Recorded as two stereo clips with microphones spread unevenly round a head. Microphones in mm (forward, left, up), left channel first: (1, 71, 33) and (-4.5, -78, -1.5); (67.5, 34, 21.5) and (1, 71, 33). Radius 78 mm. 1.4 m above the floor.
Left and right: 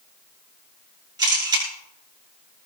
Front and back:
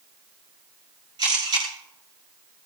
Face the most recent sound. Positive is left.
turn(degrees=-155)